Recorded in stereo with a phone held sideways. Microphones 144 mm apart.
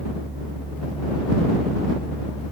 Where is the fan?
10° right (ahead or behind).